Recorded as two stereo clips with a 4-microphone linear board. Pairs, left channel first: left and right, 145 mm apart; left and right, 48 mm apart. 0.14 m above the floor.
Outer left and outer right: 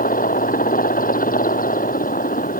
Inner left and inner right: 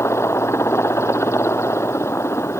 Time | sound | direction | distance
0.0 | a helicopter | 75° left (ahead or behind) | ?